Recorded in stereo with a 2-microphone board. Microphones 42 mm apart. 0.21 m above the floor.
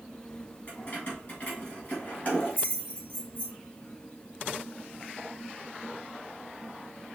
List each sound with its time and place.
0.7 s keys jangling: 35° left (ahead or behind), 2.0 m